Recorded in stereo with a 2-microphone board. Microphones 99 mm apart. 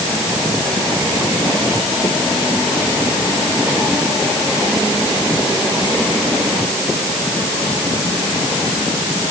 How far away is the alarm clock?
I don't hear an alarm clock.